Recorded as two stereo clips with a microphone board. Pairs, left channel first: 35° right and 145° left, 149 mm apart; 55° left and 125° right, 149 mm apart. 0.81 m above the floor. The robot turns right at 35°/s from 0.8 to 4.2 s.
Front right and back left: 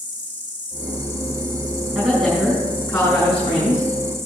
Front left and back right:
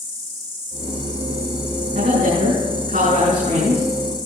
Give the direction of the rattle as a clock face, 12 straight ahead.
No rattle in this recording.